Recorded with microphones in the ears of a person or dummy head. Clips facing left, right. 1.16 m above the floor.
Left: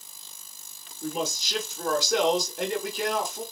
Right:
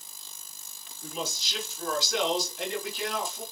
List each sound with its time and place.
1.0 s a man speaking: 40° left (ahead or behind), 0.8 m